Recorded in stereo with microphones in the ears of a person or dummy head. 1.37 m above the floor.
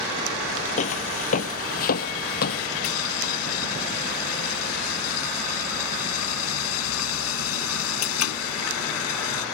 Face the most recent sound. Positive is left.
turn(degrees=80)